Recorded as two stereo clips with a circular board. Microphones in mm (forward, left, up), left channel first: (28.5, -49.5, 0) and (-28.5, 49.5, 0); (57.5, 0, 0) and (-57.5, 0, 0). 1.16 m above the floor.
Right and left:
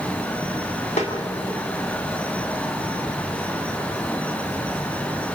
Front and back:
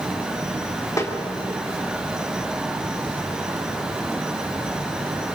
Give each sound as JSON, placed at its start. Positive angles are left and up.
{"t": 1.0, "sound": "a snare drum", "azimuth_deg": -60, "distance_m": 3.0}